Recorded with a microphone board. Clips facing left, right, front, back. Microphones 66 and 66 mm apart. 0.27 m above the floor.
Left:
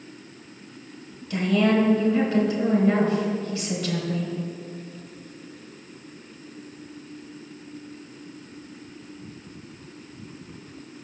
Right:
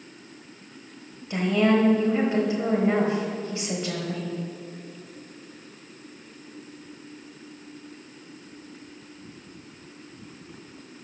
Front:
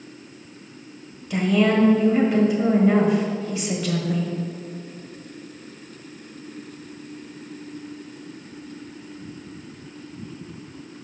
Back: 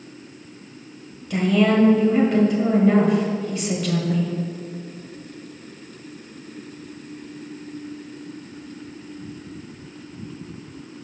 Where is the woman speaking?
85° right, 1.2 m.